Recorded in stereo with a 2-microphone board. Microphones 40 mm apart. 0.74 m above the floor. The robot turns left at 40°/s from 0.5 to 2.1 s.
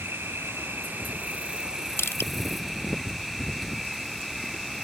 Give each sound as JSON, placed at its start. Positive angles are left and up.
{"t": 0.0, "sound": "an insect", "azimuth_deg": -110}
{"t": 2.0, "sound": "crushing", "side_deg": 90}